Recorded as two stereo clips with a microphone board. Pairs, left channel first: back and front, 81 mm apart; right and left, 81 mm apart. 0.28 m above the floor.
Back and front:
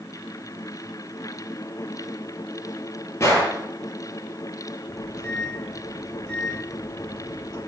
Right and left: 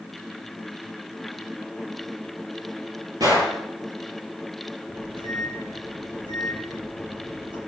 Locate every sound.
3.2 s a gunshot: 125° left, 7.5 m
4.9 s a microwave: 100° left, 7.5 m